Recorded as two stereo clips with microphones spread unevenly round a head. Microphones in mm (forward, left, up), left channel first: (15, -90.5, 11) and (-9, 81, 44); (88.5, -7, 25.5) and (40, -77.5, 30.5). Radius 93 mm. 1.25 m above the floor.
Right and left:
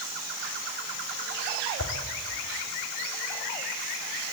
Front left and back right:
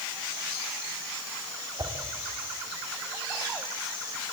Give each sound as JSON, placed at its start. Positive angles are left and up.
{"t": 1.8, "sound": "a whoosh", "azimuth_deg": -85, "distance_m": 2.5}